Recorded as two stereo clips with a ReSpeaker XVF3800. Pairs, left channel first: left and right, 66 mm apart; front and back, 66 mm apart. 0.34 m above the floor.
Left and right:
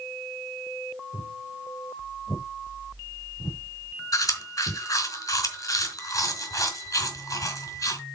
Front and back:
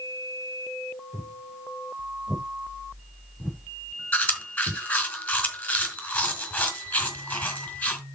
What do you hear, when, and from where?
1.1 s footsteps: 85° left, 7.5 m; by 4.8 s 70° left, 5.5 m
4.1 s chewing: 65° left, 3.5 m